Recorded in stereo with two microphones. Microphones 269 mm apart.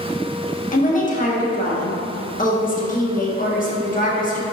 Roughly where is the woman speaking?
Left.